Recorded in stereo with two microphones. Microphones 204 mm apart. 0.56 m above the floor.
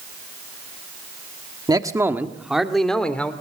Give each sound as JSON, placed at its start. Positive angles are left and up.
{"t": 1.7, "sound": "a man speaking", "side_deg": -20, "distance_m": 1.3}